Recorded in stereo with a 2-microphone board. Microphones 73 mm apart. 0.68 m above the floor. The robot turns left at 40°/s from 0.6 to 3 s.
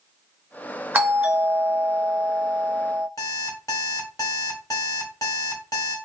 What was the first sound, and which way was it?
A doorbell, 25° right (ahead or behind).